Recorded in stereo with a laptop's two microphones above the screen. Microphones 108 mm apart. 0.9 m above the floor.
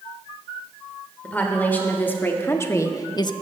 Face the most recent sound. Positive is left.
turn(degrees=45)  # may be behind; listen again after turning